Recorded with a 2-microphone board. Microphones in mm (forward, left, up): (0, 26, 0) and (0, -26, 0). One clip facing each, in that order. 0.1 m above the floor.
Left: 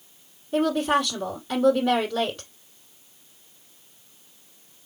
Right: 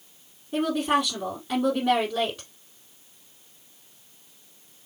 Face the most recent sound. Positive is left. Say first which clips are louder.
# left 2 dB
turn(degrees=-10)  # may be behind; listen again after turning